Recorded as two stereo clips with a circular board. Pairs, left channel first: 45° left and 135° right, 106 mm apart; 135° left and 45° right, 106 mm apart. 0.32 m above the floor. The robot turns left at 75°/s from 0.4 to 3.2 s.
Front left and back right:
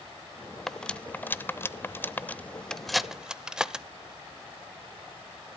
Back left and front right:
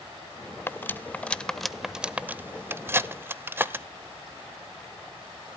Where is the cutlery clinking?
125° left, 0.5 m; by 3.9 s 65° right, 0.5 m.